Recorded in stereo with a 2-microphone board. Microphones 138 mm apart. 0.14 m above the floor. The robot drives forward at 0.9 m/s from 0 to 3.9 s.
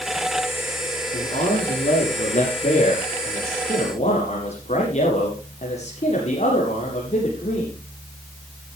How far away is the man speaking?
About 7 m.